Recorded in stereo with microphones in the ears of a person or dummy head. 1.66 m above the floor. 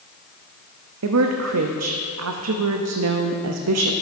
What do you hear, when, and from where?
1.0 s a woman speaking: 80° right, 0.5 m